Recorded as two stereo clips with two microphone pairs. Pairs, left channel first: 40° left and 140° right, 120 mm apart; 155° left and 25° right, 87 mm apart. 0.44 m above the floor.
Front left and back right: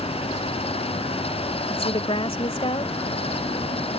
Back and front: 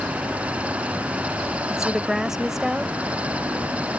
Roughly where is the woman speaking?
Ahead left.